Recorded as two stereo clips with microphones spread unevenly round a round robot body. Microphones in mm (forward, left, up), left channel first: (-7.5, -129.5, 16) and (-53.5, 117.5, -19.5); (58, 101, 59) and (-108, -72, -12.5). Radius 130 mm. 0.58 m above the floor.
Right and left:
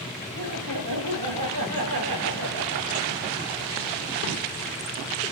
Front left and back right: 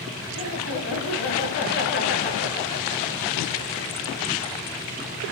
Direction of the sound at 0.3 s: 75° left.